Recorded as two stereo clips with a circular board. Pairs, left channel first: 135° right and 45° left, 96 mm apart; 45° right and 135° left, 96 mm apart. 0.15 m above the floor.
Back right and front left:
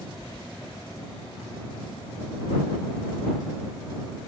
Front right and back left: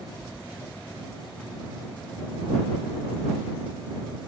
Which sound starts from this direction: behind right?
Keys jangling, at 0.2 s.